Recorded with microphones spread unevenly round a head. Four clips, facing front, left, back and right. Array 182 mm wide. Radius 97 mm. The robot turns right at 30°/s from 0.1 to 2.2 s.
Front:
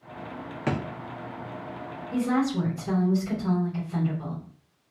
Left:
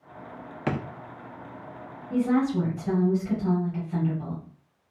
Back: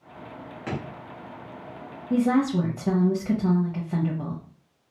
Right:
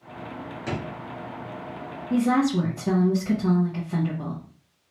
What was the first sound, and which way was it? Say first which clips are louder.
A drawer: left 3 dB, front 4 dB; 55° left.